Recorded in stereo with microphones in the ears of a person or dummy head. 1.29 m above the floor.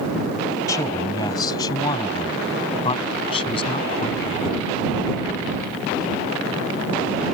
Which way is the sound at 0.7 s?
20° left (ahead or behind).